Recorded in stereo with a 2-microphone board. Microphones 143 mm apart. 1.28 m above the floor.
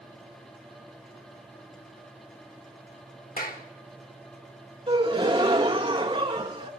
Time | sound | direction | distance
3.4 | a clap | 80° left | 1.6 m
4.9 | a gasp | 40° right (ahead or behind) | 1.7 m